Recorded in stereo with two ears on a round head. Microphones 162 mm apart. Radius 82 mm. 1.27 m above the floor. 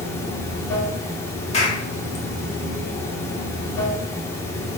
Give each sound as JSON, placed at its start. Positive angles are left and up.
{"t": 0.0, "sound": "running water", "side_deg": 15, "distance_m": 1.7}
{"t": 1.5, "sound": "a clap", "side_deg": 35, "distance_m": 2.0}